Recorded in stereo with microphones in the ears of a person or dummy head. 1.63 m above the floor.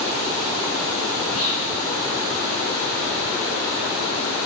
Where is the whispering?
85° left, 4.5 m.